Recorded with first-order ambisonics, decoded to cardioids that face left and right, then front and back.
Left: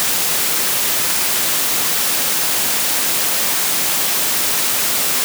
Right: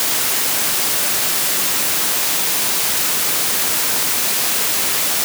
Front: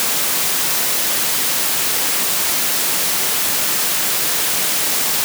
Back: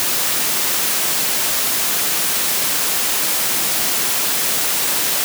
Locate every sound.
Only background noise.